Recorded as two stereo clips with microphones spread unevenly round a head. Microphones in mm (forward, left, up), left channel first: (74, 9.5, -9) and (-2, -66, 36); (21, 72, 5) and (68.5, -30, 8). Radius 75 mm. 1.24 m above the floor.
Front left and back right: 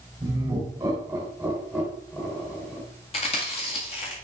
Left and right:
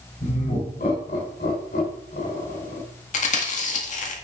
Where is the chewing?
100° left, 1.7 m.